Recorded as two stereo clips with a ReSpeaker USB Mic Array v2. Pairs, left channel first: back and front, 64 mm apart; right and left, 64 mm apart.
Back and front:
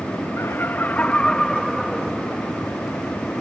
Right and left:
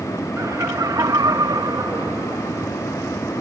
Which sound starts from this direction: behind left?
Laughter, at 0.4 s.